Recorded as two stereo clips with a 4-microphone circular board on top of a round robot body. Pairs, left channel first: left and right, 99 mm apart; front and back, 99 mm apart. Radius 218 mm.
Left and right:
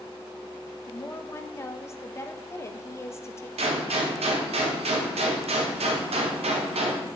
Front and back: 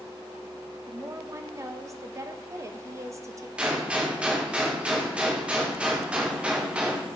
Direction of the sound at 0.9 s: 140° left.